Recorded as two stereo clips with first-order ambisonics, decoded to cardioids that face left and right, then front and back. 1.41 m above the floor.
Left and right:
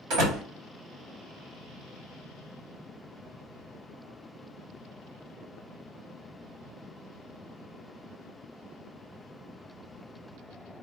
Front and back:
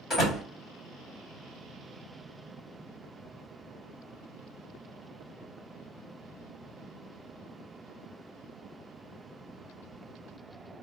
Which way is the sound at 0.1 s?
70° right.